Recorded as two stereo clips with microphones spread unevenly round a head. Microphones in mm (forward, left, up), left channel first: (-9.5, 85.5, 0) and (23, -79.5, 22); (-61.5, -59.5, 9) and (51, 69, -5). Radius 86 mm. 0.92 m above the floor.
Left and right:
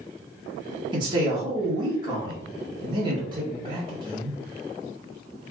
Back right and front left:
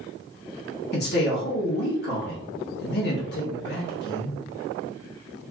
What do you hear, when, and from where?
0.9 s a man speaking: 145° right, 0.9 m